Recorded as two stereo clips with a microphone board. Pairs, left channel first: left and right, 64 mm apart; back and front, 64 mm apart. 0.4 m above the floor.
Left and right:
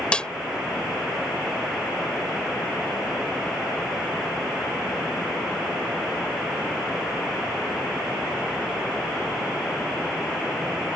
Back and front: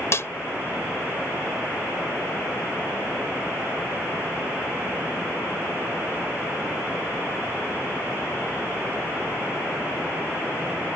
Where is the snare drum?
160° left.